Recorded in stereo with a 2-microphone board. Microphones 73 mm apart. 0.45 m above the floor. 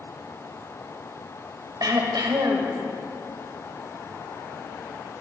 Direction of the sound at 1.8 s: 65° right (ahead or behind).